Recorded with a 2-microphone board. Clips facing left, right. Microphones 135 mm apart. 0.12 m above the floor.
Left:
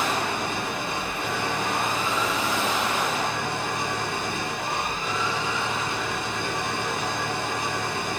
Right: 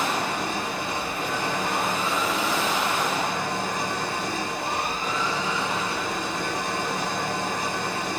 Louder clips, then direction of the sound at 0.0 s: Even; 35° right (ahead or behind).